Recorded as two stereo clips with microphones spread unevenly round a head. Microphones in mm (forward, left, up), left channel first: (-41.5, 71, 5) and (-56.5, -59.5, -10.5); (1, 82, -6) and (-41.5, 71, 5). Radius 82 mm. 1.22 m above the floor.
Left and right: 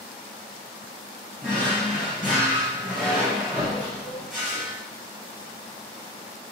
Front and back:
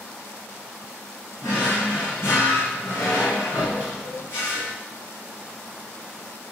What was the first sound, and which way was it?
A drawer, 5° right.